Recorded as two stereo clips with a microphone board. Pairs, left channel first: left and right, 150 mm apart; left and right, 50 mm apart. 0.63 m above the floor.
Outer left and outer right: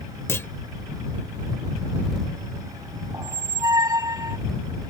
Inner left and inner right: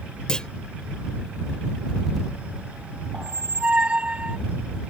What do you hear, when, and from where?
0.3 s a clunk: 15° left (ahead or behind)
3.1 s a squeak: 25° right (ahead or behind)